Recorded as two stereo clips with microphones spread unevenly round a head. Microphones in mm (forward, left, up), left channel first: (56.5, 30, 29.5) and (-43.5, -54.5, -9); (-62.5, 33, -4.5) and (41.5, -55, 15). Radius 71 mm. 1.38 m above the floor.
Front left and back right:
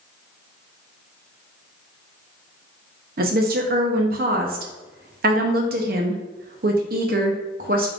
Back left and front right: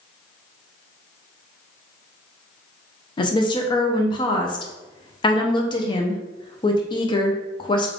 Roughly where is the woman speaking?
Behind.